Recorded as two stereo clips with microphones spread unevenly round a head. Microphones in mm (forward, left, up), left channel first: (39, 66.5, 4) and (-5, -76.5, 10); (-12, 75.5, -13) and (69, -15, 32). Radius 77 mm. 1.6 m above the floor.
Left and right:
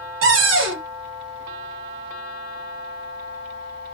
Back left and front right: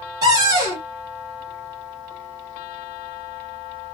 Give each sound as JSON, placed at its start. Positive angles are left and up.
{"t": 0.2, "sound": "a cupboard door", "azimuth_deg": -115, "distance_m": 1.6}